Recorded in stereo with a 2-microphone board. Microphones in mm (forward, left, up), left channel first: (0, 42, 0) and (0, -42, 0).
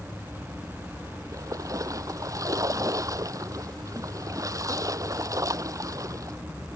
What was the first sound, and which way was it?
A splash, 45° right (ahead or behind).